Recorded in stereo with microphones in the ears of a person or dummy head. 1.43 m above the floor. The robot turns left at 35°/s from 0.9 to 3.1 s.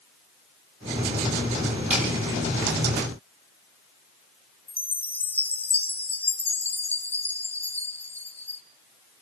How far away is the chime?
About 0.6 m.